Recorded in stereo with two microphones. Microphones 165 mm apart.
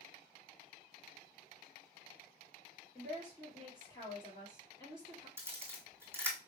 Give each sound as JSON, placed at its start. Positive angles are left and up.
{"t": 3.0, "sound": "a woman speaking", "side_deg": 15, "distance_m": 2.5}
{"t": 5.4, "sound": "a camera shutter", "side_deg": -15, "distance_m": 1.3}